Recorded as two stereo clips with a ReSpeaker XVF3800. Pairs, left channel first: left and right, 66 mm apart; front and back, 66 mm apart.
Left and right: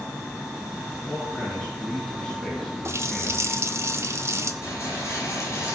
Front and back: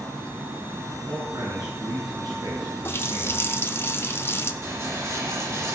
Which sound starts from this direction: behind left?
A rattle, at 4.6 s.